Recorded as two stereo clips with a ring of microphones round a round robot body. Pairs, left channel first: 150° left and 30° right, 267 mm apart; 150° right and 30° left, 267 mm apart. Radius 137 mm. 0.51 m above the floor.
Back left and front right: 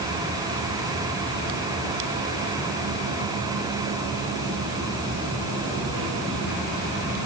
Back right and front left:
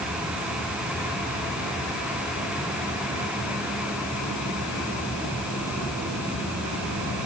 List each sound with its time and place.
Only background noise.